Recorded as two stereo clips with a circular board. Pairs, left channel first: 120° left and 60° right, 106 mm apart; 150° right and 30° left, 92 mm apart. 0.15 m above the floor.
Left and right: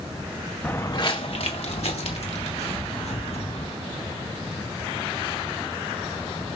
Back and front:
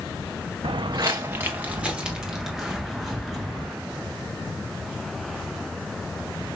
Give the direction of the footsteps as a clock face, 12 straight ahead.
11 o'clock.